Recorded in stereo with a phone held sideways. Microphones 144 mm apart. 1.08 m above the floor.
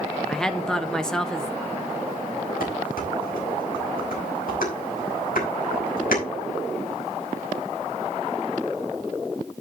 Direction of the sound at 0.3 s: 5° left (ahead or behind).